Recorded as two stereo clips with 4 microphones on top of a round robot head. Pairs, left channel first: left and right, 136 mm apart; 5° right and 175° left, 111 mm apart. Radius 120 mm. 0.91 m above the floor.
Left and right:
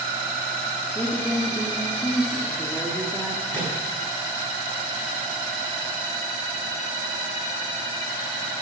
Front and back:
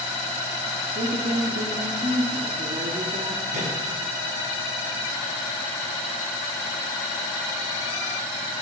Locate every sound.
0.9 s a woman speaking: 175° left, 2.5 m
3.5 s a microwave: 170° left, 7 m